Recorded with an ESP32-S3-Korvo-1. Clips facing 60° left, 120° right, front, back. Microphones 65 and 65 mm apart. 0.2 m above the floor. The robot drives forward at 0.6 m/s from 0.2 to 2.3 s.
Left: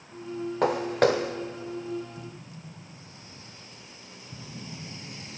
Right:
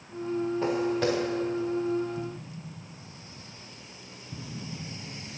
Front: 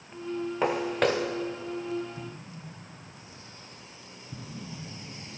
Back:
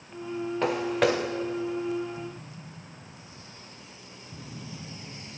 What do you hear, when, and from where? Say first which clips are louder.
0.6 s footsteps: left 6 dB, back 1 dB; 80° left, 1.2 m; by 1.3 s 100° left, 1.2 m
2.2 s an explosion: right 6 dB, back 2 dB; 45° right, 2 m